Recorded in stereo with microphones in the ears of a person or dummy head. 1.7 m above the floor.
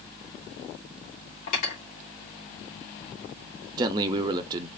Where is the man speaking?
25° right (ahead or behind), 0.7 m.